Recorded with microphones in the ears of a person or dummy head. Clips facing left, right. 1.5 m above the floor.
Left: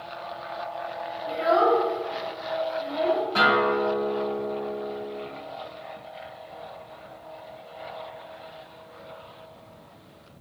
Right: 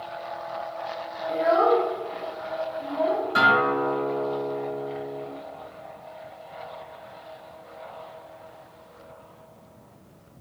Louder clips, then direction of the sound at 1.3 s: Right 1 dB; 65° left (ahead or behind).